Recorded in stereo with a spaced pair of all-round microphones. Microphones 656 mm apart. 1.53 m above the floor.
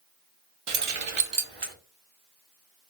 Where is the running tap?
I don't hear a running tap.